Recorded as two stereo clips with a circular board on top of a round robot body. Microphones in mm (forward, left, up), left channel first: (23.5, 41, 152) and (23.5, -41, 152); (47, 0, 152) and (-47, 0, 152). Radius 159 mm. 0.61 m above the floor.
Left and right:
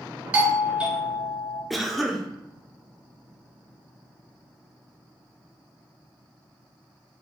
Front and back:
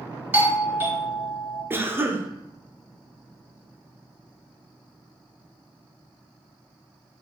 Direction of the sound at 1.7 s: Straight behind.